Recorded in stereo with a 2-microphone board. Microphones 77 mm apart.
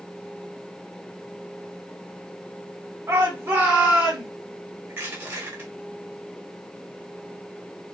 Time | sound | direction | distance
3.1 | a shout | 35° right (ahead or behind) | 1.5 m
4.9 | crushing | 30° right (ahead or behind) | 1.6 m